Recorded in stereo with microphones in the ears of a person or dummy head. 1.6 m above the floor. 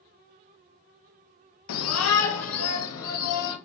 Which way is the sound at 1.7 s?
70° left (ahead or behind).